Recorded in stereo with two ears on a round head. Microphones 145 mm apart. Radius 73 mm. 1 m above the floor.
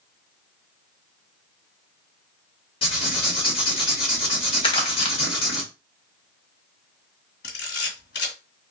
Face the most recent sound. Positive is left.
turn(degrees=70)  # may be behind; listen again after turning